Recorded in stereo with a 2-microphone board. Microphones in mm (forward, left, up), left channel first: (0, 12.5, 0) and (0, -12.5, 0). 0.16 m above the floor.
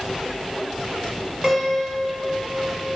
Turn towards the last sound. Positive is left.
turn(degrees=-15)  # may be behind; listen again after turning